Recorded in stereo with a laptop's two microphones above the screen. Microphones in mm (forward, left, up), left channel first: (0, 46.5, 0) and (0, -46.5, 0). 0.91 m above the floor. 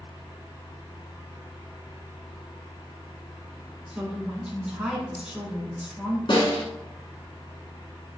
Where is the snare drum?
60° left (ahead or behind), 1.6 m.